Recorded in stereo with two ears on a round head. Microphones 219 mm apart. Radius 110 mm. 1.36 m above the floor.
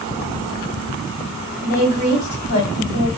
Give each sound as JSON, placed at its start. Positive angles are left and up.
{"t": 1.6, "sound": "a woman speaking", "side_deg": 45, "distance_m": 1.9}